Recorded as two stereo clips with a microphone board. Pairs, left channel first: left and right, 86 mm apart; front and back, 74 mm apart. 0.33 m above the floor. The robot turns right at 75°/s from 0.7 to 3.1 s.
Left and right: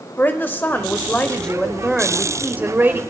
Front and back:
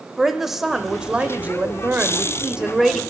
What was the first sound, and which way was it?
A woman speaking, 100° left.